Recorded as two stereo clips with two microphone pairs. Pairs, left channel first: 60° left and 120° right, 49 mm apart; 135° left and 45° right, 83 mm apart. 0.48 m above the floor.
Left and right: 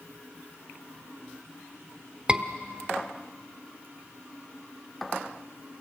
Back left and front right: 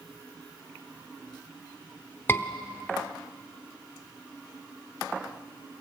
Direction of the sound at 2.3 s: 175° right.